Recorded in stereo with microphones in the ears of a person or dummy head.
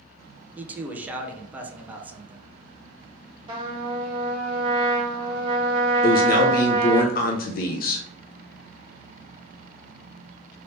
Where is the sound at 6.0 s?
45° left (ahead or behind), 0.5 m.